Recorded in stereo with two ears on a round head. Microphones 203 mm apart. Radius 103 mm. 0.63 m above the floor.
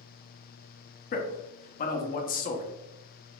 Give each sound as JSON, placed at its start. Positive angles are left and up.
{"t": 1.1, "sound": "a man speaking", "side_deg": 35, "distance_m": 0.8}